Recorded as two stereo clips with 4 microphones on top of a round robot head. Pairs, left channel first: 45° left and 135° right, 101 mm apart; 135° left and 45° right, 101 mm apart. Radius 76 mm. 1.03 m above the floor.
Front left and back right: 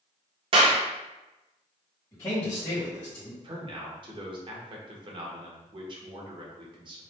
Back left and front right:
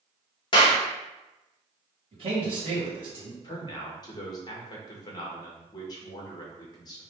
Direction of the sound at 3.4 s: 175° right.